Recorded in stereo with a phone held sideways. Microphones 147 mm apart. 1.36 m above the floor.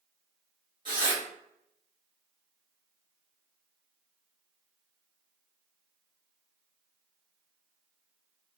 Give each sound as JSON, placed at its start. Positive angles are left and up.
{"t": 0.8, "sound": "tearing paper", "side_deg": -35, "distance_m": 1.7}